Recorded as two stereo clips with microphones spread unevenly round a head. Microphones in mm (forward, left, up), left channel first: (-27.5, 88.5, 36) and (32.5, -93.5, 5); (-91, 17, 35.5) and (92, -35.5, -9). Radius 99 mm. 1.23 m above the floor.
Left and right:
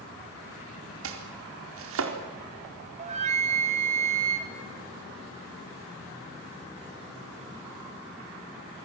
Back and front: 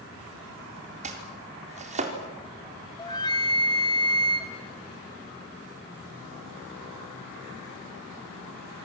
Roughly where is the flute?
Behind right.